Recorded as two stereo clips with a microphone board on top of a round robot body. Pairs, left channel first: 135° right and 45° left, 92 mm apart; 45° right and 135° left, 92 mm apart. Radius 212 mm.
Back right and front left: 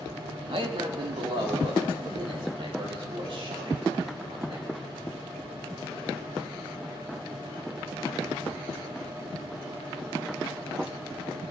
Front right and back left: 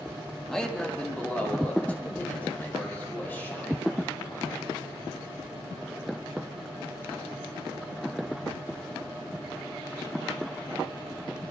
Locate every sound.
0.5 s a man speaking: 40° left, 1.9 m; by 4.9 s 25° left, 7 m